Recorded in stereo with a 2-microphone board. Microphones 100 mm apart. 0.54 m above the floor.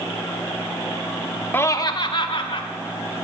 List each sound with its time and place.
1.5 s laughter: 20° left (ahead or behind), 0.8 m; by 2.6 s 65° left (ahead or behind), 1.8 m